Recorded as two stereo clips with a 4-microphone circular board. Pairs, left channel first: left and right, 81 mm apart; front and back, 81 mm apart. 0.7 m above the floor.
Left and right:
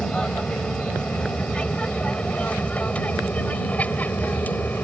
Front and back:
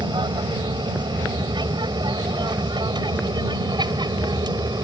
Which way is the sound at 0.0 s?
170° left.